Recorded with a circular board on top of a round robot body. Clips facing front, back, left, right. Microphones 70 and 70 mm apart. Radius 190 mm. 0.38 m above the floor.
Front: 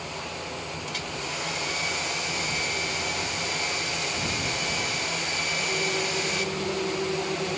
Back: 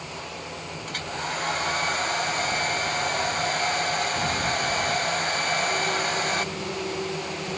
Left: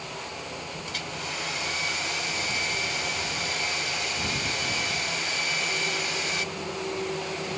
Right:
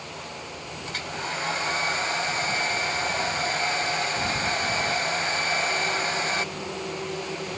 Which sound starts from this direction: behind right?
A hair dryer, at 0.9 s.